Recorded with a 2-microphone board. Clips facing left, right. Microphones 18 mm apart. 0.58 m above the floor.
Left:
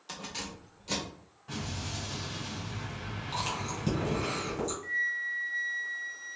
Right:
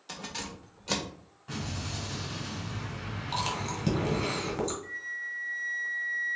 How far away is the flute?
About 0.6 m.